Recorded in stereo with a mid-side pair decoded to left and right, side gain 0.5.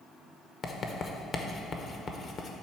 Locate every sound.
0.6 s writing: 45° left, 0.9 m